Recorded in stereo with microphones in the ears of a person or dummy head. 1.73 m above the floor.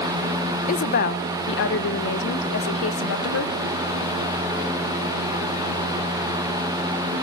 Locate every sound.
0.7 s a woman speaking: 45° left (ahead or behind), 1.1 m; by 3.5 s 75° left (ahead or behind), 2.5 m